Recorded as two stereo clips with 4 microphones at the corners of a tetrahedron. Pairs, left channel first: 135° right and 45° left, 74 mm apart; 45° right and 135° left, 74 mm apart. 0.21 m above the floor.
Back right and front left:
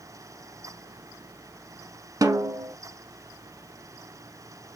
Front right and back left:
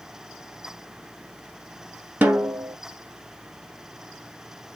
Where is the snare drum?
70° left, 1.1 m.